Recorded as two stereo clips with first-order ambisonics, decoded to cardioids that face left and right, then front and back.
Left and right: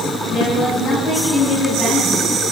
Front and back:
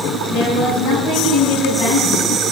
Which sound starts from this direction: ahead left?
A woman speaking, at 0.3 s.